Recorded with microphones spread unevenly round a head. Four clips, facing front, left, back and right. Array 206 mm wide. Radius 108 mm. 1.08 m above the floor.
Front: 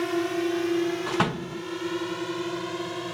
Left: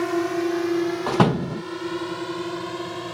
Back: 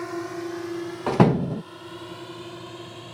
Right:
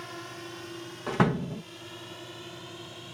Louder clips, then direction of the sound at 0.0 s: Left 19 dB, front 5 dB; 70° left.